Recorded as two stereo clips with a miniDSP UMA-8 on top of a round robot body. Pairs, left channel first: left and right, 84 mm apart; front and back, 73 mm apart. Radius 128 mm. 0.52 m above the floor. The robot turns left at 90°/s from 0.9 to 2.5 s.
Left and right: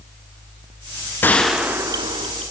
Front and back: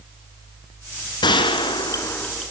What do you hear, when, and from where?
1.2 s a gunshot: 25° left, 1.3 m; by 2.5 s 90° right, 1.3 m